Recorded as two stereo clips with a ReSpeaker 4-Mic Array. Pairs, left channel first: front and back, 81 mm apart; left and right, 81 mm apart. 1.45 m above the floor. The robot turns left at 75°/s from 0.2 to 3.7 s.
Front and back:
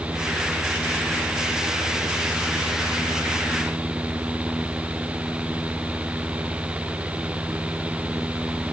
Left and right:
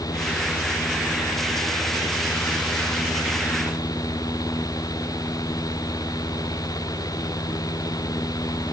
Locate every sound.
Only background noise.